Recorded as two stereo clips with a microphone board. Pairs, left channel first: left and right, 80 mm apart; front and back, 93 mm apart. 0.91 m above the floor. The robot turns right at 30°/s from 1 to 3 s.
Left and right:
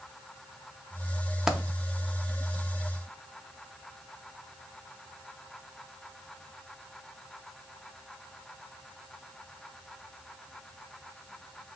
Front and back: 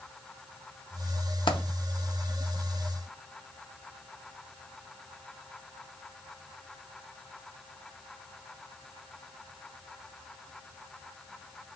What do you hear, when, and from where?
1.5 s a dropped coin: 10° right, 0.6 m; by 1.6 s 5° right, 0.6 m